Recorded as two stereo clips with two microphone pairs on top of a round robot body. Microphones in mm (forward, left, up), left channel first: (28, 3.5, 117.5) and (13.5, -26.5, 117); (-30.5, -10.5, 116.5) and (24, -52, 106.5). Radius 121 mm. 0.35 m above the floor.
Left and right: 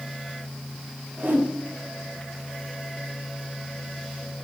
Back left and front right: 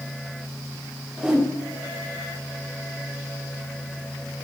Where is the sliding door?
No sliding door in this recording.